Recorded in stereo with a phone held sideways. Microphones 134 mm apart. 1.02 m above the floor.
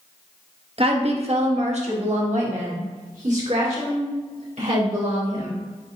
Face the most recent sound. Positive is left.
turn(degrees=-65)  # may be behind; listen again after turning